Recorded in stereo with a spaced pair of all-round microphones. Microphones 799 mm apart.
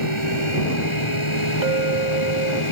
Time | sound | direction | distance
0.0 | a fan | 35° left (ahead or behind) | ?
1.6 | a clink | 75° right (ahead or behind) | ?